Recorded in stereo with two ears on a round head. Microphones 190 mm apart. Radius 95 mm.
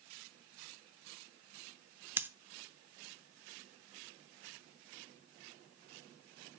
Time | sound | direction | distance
2.2 | scissors | 10° right (ahead or behind) | 0.7 m